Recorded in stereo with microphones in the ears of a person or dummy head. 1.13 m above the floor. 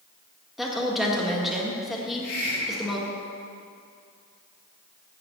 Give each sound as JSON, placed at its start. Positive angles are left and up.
{"t": 0.6, "sound": "a woman speaking", "side_deg": 5, "distance_m": 1.6}
{"t": 2.0, "sound": "a hiss", "side_deg": 80, "distance_m": 3.0}